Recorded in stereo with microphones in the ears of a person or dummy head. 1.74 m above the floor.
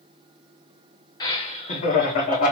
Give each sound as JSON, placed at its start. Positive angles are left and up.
{"t": 1.2, "sound": "laughter", "side_deg": 30, "distance_m": 0.9}